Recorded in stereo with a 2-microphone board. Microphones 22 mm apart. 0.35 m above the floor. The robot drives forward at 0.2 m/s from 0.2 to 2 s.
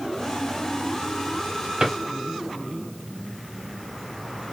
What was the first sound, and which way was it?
A drawer, 60° right (ahead or behind).